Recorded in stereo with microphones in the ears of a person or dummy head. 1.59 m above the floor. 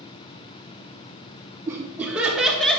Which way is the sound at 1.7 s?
5° right (ahead or behind).